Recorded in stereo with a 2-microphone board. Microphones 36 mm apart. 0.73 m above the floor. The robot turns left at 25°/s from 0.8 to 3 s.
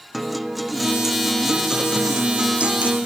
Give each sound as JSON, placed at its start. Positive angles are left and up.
{"t": 0.1, "sound": "a guitar", "azimuth_deg": -10, "distance_m": 0.6}